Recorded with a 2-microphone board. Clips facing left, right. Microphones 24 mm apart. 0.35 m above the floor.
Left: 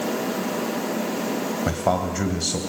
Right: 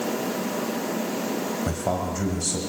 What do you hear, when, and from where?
1.7 s a man speaking: 35° left (ahead or behind), 2.5 m